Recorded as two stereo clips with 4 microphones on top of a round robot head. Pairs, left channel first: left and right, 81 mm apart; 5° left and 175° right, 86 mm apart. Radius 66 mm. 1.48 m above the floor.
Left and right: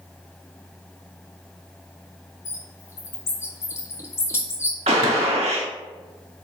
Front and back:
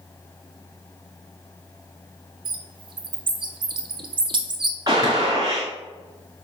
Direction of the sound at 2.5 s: 160° left.